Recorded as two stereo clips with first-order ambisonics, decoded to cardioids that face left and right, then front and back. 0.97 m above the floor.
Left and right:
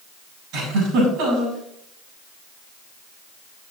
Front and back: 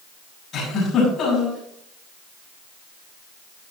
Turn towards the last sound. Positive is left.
turn(degrees=-60)